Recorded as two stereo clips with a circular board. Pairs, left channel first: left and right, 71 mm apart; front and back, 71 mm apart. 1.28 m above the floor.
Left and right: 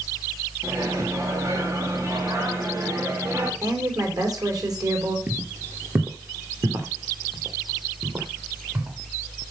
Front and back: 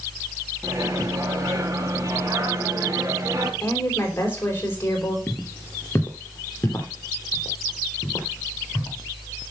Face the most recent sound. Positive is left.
turn(degrees=-55)